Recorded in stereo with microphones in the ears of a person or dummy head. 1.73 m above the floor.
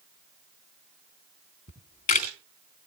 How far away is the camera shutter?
About 2.5 m.